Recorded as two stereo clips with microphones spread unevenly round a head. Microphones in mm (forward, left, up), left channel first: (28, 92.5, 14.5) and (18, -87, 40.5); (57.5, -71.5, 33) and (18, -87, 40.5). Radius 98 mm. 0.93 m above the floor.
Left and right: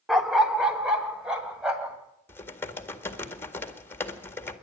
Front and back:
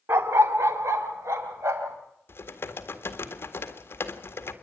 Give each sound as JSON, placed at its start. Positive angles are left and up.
{"t": 0.1, "sound": "a dog barking", "azimuth_deg": -175, "distance_m": 0.7}
{"t": 2.3, "sound": "typing on a keyboard", "azimuth_deg": 10, "distance_m": 1.8}